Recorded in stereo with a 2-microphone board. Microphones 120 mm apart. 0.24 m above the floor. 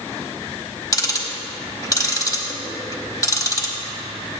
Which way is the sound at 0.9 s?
30° left (ahead or behind).